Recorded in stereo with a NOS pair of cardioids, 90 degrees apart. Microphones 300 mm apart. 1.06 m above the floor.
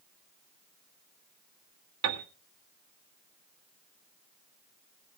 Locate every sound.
2.0 s a piano: 65° right, 1.8 m